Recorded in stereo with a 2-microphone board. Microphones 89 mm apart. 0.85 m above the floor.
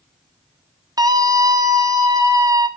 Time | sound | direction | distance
1.0 | a scream | 45° right (ahead or behind) | 1.3 m